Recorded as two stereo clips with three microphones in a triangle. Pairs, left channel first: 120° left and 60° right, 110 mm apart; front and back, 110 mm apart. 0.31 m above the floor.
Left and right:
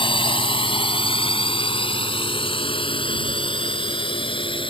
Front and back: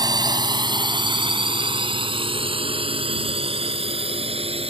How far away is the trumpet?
No trumpet in this recording.